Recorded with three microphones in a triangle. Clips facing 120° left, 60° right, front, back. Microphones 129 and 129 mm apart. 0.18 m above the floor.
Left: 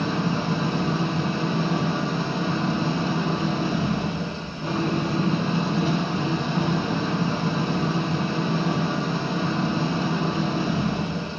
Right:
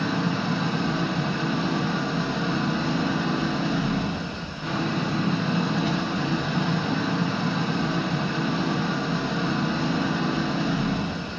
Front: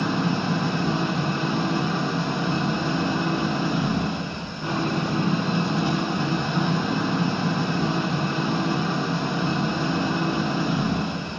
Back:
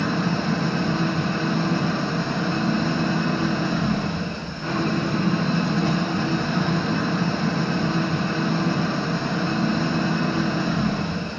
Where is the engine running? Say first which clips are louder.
Left 1 dB, back 1 dB; 70° left, 2 m.